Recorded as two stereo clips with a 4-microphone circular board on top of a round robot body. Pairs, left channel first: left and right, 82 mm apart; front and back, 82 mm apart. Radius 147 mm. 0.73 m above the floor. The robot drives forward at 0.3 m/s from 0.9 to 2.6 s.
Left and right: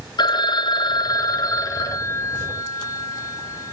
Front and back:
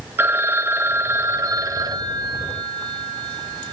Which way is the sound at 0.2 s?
120° left.